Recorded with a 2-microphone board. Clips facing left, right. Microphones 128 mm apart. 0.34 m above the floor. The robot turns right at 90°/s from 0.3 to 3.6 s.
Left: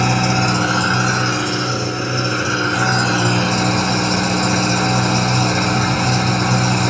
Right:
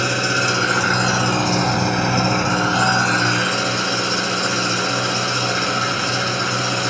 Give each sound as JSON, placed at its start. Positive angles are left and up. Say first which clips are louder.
{"t": 0.0, "sound": "an engine running", "louder": "left 4 dB", "azimuth_deg": 110, "distance_m": 1.9}